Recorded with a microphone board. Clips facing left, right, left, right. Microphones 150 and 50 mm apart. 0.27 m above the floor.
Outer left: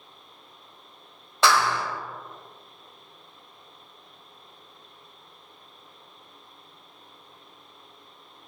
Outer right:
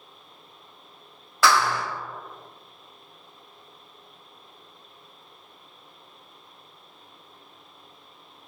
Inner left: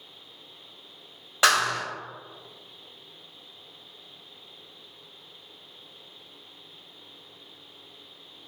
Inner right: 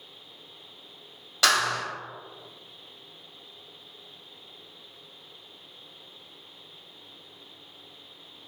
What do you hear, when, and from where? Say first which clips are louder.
1.4 s a clap: outer right 1 dB, inner left 2 dB; 25° left (ahead or behind), 1.1 m